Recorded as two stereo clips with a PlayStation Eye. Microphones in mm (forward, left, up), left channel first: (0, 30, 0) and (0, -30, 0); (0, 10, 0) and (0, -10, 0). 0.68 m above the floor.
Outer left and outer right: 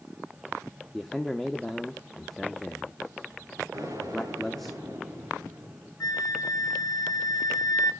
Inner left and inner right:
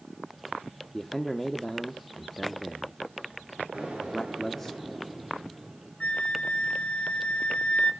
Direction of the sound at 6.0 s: 85° left.